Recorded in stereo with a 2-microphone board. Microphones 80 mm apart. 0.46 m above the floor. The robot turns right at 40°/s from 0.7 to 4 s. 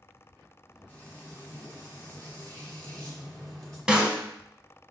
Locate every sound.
0.9 s frying: 20° left (ahead or behind), 1.3 m; by 3.8 s centre (ahead or behind), 1.3 m
3.9 s a snare drum: 10° right (ahead or behind), 0.7 m; by 4.2 s 15° right (ahead or behind), 0.7 m